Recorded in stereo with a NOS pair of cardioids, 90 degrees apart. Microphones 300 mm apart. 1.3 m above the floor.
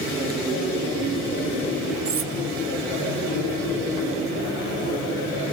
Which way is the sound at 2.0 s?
50° right.